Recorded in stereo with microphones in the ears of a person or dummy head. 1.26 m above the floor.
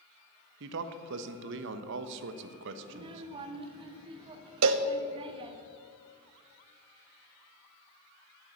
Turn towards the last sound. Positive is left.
turn(degrees=-70)  # may be behind; listen again after turning